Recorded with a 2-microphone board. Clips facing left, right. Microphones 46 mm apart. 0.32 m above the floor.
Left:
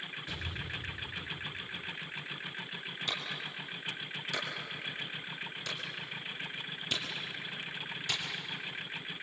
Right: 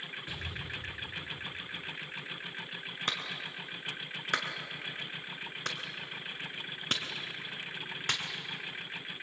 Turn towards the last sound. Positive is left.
turn(degrees=-50)  # may be behind; listen again after turning